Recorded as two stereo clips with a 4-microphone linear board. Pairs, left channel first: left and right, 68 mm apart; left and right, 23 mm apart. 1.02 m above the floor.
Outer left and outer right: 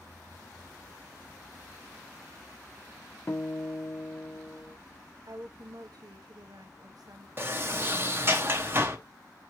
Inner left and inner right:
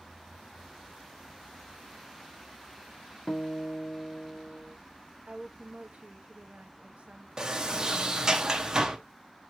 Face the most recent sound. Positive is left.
turn(degrees=-35)  # may be behind; listen again after turning